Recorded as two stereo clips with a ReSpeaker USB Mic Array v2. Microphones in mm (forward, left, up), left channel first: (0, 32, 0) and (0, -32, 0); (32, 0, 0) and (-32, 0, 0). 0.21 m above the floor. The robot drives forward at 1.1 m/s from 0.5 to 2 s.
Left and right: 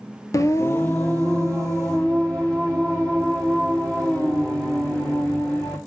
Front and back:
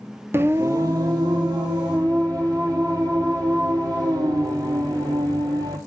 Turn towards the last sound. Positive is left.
turn(degrees=170)